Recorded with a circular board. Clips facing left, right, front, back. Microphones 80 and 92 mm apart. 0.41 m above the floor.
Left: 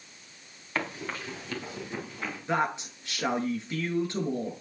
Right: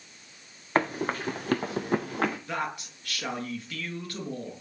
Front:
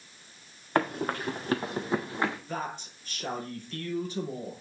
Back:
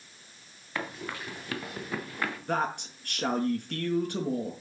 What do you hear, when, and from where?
0.8 s running footsteps: 45° right, 2.5 m; by 2.4 s 70° right, 3 m
2.5 s a woman speaking: 155° left, 6 m